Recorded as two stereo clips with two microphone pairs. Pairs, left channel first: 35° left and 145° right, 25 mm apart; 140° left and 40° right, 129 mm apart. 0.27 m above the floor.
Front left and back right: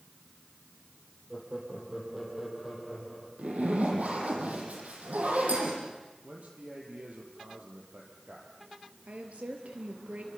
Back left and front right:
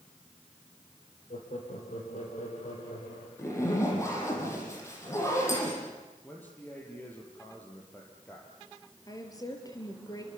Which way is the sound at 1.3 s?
140° left.